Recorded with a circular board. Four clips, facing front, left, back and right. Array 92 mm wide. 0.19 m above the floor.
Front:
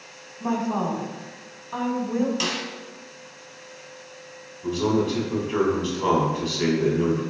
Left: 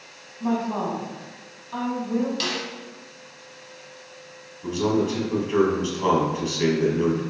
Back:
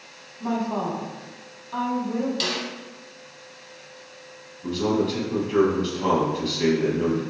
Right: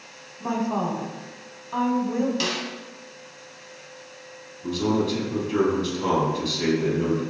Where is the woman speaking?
40° right, 1.0 m.